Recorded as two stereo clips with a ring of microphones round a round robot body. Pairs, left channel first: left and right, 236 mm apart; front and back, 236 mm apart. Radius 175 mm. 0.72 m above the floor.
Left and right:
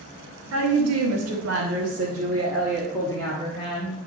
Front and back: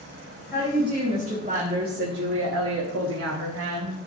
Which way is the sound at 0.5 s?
90° right.